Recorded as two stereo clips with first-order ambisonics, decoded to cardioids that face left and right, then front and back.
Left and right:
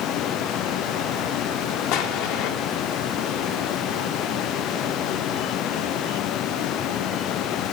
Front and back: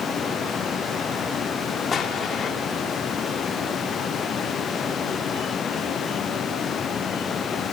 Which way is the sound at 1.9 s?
70° left.